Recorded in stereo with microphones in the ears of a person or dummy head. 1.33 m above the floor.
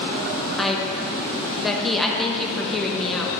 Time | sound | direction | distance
0.6 | a woman speaking | 5° right (ahead or behind) | 0.8 m